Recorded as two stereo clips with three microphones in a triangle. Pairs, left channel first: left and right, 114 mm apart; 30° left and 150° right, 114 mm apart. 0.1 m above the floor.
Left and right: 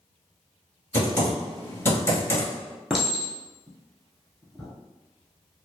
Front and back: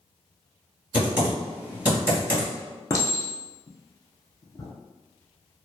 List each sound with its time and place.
0.9 s typing on a keyboard: 145° left, 1.7 m
2.9 s a clink: 5° right, 0.8 m